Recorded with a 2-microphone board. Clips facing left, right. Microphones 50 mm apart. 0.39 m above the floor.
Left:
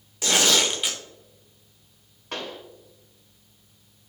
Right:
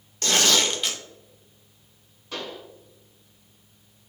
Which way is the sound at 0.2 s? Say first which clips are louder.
Even; 10° left (ahead or behind).